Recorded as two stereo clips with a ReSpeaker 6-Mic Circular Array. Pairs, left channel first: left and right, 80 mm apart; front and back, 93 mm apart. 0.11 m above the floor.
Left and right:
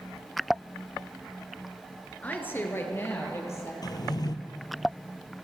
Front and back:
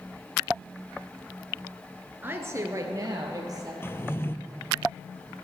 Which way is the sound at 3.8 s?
60° left.